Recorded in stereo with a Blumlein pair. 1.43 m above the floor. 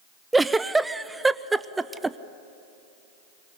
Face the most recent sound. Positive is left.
turn(degrees=-10)